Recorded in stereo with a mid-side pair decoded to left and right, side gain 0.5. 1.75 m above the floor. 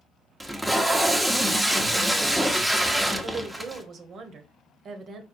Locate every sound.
0.4 s tape being pulled: 5° right, 0.9 m
3.2 s a woman speaking: 50° right, 1.2 m